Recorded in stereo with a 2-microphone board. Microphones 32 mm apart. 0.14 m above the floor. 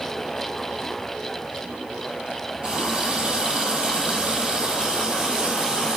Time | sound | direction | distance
2.6 | a running tap | 30° right (ahead or behind) | 3.5 m